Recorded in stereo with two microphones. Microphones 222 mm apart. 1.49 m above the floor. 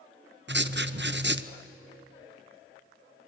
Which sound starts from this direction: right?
Writing, at 0.5 s.